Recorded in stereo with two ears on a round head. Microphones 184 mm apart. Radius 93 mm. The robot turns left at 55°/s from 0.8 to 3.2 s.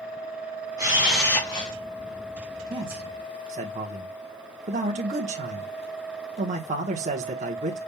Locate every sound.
0.8 s a camera shutter: 160° right, 4 m; by 1.7 s 150° left, 4 m
2.7 s a man speaking: 20° right (ahead or behind), 1.0 m; by 7.8 s 35° right (ahead or behind), 1.0 m